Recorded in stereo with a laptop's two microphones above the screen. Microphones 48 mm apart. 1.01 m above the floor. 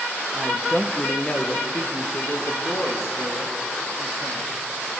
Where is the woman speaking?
25° right (ahead or behind), 0.7 m; by 4.5 s 70° left (ahead or behind), 2.5 m.